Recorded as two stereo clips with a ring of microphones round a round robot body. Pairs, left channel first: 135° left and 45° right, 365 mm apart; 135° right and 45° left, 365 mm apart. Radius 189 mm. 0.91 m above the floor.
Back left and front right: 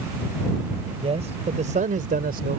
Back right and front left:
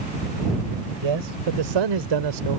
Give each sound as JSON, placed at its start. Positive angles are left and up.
{"t": 1.0, "sound": "a man speaking", "azimuth_deg": 30}